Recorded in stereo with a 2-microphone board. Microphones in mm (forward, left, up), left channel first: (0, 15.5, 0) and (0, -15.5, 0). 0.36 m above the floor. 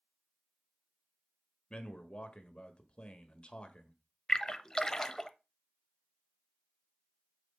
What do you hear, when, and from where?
1.7 s a man speaking: 40° left (ahead or behind), 1.3 m
4.3 s a splash: 20° left (ahead or behind), 0.6 m